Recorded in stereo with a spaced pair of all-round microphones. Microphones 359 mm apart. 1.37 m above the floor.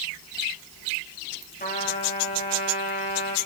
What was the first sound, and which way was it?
A trumpet, 25° left (ahead or behind).